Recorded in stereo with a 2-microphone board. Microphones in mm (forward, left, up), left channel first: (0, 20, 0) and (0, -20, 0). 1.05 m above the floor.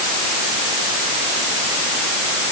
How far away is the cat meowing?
No cat meowing in this recording.